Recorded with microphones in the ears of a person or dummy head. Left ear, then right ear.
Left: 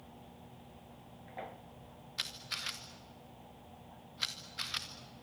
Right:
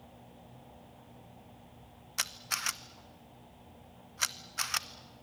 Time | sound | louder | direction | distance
2.2 | a camera shutter | right 4 dB | 30° right (ahead or behind) | 0.9 m